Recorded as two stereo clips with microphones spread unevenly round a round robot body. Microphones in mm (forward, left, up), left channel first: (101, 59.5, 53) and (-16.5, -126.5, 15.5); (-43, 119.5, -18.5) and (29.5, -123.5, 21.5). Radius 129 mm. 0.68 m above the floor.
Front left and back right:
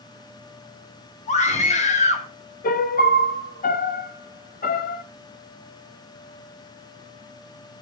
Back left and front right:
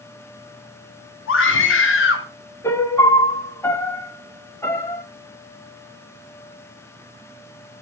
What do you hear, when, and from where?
1.3 s a scream: 120° left, 1.8 m
2.6 s a piano: 55° left, 1.2 m